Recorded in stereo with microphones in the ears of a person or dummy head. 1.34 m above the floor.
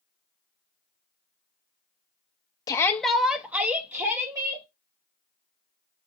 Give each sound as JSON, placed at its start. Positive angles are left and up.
{"t": 2.7, "sound": "a shout", "side_deg": 15, "distance_m": 0.5}